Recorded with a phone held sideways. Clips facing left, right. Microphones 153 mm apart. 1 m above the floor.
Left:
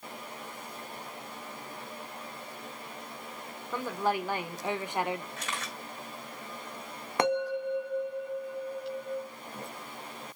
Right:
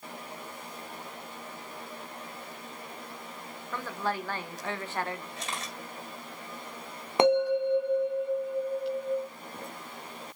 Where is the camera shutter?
30° right (ahead or behind), 3 m.